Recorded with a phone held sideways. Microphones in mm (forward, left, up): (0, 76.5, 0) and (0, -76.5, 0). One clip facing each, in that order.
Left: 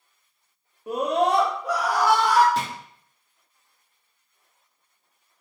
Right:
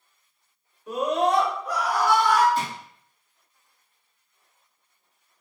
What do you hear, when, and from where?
0.9 s a scream: 60° left (ahead or behind), 1.6 m; by 2.5 s 85° left, 1.3 m
2.5 s a drawer: 75° left (ahead or behind), 2 m